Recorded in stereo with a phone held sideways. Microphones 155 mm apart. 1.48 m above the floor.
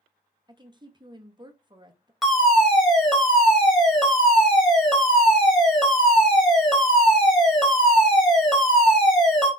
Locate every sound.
0.5 s a woman speaking: 30° right (ahead or behind), 0.7 m
2.2 s a fire alarm: centre (ahead or behind), 1.5 m